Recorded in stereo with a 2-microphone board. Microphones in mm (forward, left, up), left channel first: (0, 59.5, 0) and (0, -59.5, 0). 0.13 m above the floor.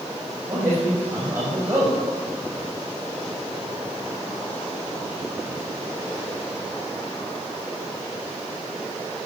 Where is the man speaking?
20° right (ahead or behind), 7 m.